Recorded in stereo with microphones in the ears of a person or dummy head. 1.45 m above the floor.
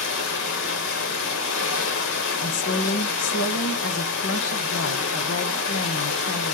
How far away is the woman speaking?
About 1.7 m.